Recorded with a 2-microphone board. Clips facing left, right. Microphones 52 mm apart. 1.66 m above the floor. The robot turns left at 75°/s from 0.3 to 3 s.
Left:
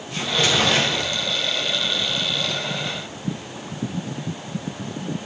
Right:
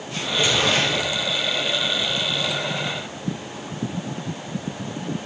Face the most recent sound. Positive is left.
turn(degrees=-95)